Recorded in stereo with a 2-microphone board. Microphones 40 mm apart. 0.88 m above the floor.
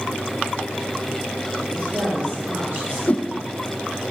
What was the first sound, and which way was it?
A woman speaking, 45° right (ahead or behind).